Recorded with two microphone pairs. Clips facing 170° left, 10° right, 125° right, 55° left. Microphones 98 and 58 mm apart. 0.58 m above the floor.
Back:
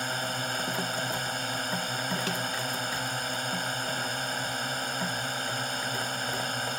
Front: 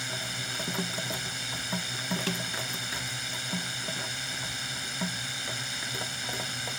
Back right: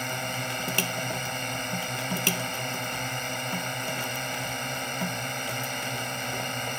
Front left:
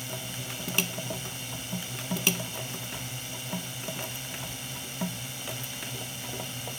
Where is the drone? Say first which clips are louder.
Back 6 dB, back right 8 dB; 155° right.